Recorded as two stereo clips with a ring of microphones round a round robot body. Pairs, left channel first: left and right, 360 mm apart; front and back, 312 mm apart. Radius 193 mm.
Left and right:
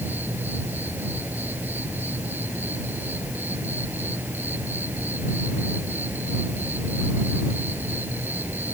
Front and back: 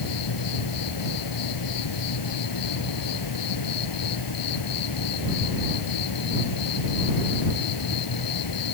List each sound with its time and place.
0.0 s an insect: 5° right